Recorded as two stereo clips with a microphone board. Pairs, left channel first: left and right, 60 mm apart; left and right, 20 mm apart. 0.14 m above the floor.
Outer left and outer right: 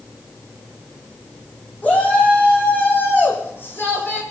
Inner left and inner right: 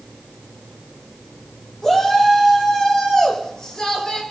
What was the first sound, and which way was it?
A shout, 30° left (ahead or behind).